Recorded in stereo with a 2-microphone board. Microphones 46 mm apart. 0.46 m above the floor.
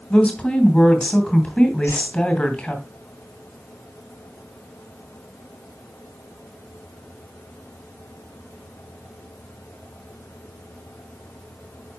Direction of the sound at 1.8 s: 70° left (ahead or behind).